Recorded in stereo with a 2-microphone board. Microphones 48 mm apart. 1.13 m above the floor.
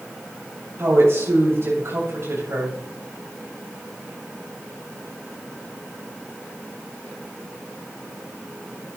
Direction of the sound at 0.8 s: 55° right (ahead or behind).